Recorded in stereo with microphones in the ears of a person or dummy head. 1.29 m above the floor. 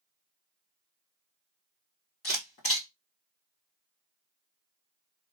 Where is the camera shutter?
25° left (ahead or behind), 1.8 m.